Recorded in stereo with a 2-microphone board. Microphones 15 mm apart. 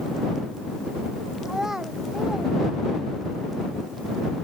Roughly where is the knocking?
No knocking in this recording.